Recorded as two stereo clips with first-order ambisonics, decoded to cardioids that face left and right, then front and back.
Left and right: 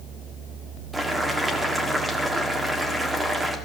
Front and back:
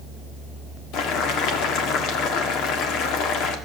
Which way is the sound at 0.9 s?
10° right.